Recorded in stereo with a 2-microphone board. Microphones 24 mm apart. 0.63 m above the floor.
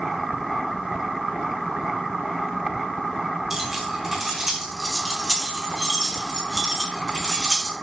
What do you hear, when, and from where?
3.5 s keys jangling: 15° right (ahead or behind), 3.5 m; by 7.7 s 30° right (ahead or behind), 5 m